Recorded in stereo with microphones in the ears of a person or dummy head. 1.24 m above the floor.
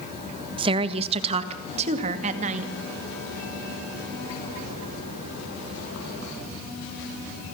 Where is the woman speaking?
25° right (ahead or behind), 1.4 m; by 2.7 s 40° right (ahead or behind), 2.5 m.